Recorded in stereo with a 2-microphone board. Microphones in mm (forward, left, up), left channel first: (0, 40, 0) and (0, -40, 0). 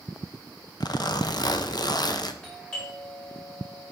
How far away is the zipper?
About 0.7 m.